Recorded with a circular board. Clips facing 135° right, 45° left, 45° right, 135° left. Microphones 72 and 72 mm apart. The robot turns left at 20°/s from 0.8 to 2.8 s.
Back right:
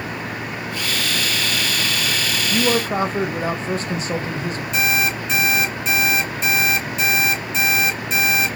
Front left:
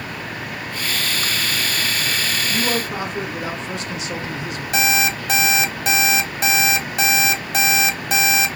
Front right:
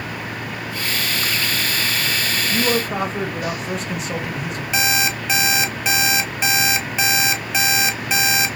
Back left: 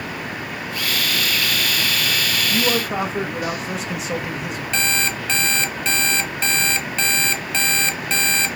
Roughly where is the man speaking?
Behind right.